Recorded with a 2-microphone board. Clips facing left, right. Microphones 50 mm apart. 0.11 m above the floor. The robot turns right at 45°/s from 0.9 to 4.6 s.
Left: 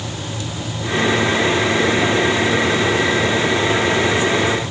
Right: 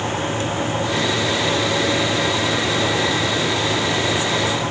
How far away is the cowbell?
I don't hear a cowbell.